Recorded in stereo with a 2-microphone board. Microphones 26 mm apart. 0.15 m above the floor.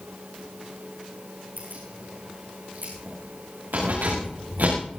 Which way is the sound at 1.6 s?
85° right.